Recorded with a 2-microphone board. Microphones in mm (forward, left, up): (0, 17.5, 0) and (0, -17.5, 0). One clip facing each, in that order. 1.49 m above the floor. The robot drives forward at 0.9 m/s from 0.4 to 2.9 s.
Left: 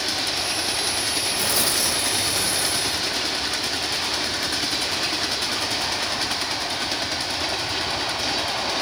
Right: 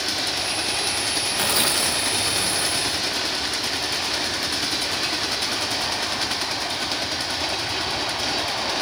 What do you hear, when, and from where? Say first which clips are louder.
1.4 s tearing paper: right 4 dB; 45° right (ahead or behind), 1.9 m; by 3.2 s 30° right (ahead or behind), 3 m